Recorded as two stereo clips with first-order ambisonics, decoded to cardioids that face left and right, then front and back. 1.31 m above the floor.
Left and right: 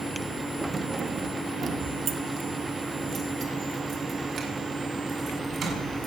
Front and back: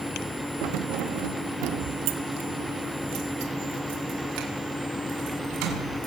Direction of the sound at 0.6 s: 170° right.